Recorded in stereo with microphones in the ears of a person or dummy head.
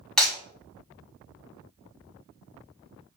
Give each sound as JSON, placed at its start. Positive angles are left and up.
{"t": 0.2, "sound": "breaking glass", "side_deg": 5, "distance_m": 4.5}